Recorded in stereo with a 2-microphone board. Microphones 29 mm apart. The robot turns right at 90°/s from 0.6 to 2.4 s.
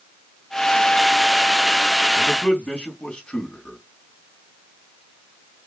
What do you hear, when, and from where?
2.1 s a man speaking: 15° left (ahead or behind), 3 m; by 3.8 s 35° left (ahead or behind), 3 m